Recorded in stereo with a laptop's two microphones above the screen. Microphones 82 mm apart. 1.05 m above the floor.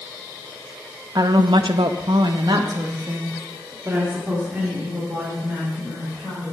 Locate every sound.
1.1 s a woman speaking: 55° right (ahead or behind), 1.0 m; by 6.5 s 15° right (ahead or behind), 4 m